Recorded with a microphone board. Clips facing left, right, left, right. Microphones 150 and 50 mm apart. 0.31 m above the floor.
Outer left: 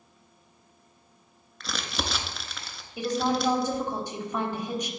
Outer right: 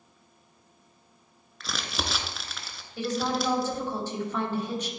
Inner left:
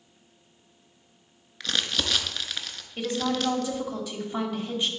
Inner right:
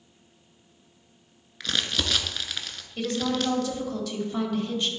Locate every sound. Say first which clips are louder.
1.6 s crumpling: outer left 1 dB, even; centre (ahead or behind), 0.6 m
3.0 s a woman speaking: outer left 2 dB, even; 15° left (ahead or behind), 1.3 m